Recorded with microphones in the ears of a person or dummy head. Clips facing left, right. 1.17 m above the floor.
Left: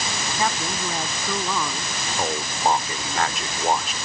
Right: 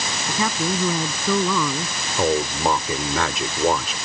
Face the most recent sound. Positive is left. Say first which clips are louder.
# right 5 dB
turn(degrees=-65)  # may be behind; listen again after turning